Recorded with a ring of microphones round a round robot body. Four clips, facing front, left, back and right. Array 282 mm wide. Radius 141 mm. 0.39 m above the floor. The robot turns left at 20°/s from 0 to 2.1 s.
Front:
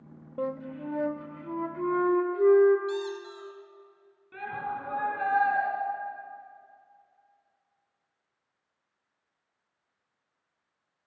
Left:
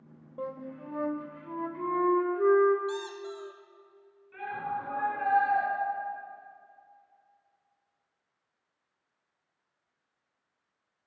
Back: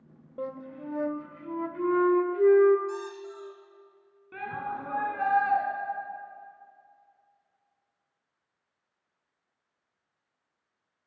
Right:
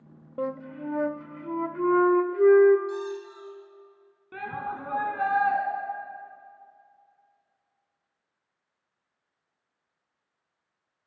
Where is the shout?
110° right, 3.5 m.